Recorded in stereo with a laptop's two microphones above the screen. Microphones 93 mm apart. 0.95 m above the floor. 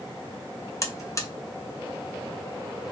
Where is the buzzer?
35° left (ahead or behind), 0.5 m.